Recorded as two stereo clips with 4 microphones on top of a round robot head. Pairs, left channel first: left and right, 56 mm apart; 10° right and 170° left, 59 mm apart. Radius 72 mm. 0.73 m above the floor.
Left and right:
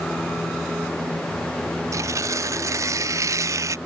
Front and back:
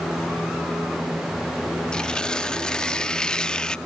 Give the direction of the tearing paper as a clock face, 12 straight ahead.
3 o'clock.